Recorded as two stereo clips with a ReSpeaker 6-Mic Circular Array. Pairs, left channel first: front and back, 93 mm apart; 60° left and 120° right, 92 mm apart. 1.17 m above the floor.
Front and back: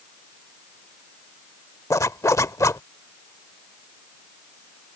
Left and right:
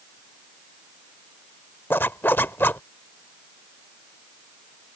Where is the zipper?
10° left.